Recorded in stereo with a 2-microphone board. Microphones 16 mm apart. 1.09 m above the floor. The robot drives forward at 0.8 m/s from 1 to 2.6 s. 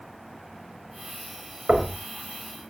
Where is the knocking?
80° right, 3 m; by 1.9 s 75° right (ahead or behind), 3.5 m.